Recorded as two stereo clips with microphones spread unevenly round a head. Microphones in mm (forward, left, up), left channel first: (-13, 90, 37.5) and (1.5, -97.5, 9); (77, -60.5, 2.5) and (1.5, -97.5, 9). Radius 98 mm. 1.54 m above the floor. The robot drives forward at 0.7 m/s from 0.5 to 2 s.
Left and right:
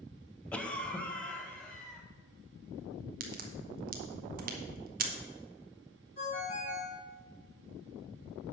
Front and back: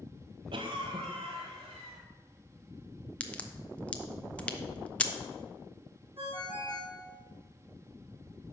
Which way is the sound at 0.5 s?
175° left.